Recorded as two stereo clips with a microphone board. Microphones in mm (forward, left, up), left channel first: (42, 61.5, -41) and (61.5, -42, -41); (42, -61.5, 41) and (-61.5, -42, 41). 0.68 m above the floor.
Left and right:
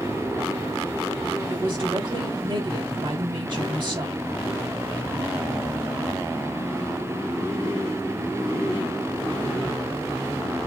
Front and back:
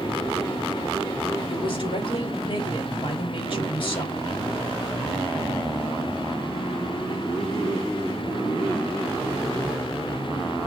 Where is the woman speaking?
45° right, 2.5 m.